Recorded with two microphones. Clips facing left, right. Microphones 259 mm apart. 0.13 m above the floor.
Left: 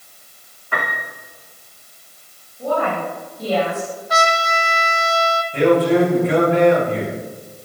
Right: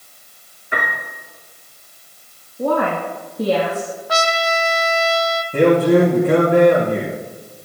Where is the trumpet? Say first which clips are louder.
Right 1 dB; 70° right (ahead or behind), 1.3 m.